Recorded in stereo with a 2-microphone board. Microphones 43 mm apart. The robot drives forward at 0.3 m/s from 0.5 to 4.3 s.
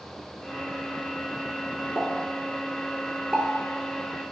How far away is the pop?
About 1.1 m.